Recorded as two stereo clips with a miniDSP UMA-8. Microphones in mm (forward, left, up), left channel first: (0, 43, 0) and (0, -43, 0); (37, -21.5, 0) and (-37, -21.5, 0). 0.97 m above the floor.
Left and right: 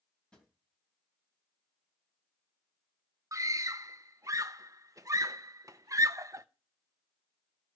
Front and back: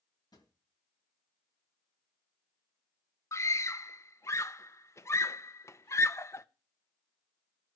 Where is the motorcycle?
I don't hear a motorcycle.